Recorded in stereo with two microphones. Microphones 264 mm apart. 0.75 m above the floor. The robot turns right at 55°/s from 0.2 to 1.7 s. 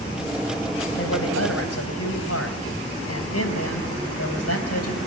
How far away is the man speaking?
About 4.5 m.